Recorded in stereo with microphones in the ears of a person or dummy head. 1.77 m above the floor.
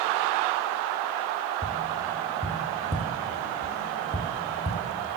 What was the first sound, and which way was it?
Tapping, 20° right (ahead or behind).